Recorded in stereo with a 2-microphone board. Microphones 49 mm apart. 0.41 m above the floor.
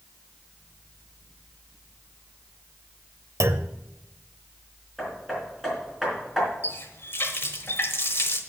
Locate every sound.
3.4 s a clunk: 70° right (ahead or behind), 0.5 m
5.0 s hammering: 5° right (ahead or behind), 4 m
6.6 s a running tap: 55° left (ahead or behind), 1.1 m